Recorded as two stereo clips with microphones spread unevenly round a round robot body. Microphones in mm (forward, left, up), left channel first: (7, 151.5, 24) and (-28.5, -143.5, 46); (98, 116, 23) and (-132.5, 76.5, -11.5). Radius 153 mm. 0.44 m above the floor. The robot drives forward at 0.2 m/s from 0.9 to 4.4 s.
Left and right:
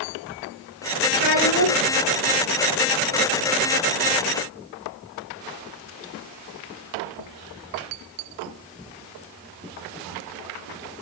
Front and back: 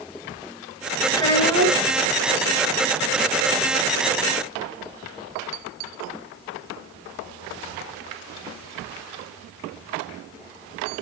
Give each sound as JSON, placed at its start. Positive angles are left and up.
{"t": 1.1, "sound": "a child speaking", "azimuth_deg": 85, "distance_m": 3.0}